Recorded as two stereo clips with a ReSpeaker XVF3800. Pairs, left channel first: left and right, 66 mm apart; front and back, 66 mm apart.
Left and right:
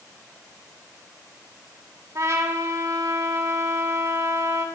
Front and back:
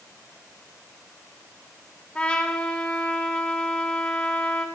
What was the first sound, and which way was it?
A trumpet, 70° right.